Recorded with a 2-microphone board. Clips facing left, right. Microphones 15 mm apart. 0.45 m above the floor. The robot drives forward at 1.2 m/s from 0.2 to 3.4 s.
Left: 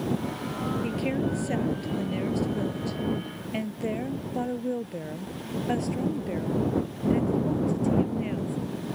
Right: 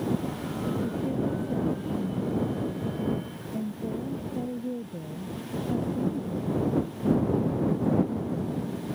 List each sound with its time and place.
0.8 s a woman speaking: 85° left; by 8.6 s 70° left (ahead or behind)